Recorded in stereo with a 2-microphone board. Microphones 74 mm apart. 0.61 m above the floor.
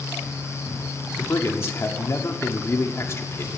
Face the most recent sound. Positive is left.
turn(degrees=35)  # may be behind; listen again after turning